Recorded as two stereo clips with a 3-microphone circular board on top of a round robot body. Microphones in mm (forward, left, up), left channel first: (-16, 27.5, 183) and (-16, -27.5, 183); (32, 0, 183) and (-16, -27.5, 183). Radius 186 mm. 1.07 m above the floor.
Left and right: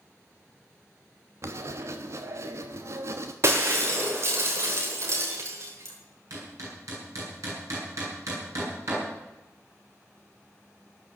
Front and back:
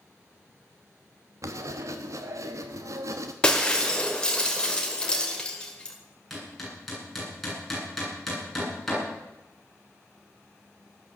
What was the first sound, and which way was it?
Writing, 125° right.